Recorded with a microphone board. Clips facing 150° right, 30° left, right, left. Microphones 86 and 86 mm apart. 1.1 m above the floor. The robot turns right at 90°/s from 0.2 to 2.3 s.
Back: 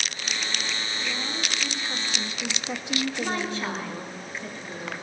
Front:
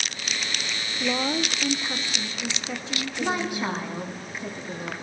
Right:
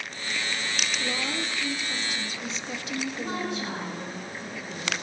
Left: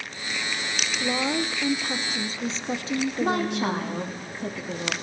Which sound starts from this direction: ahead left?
A woman speaking, at 1.0 s.